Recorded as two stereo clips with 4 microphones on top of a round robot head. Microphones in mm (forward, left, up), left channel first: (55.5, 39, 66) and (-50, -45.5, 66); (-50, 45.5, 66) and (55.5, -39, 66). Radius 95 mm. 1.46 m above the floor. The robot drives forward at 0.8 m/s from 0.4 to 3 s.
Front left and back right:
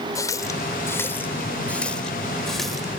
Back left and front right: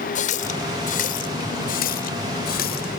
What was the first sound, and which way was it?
A running tap, 110° left.